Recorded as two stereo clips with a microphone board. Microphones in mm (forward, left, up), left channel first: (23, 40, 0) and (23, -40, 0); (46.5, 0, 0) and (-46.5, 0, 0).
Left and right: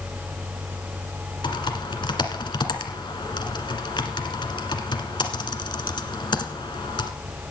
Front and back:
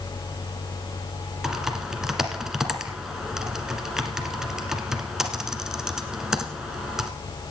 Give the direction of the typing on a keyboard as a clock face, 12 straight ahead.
9 o'clock.